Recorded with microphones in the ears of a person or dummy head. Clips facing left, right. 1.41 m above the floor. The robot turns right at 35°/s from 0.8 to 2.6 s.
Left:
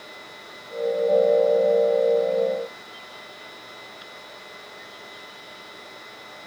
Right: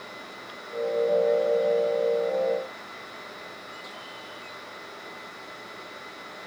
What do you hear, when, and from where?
Only background noise.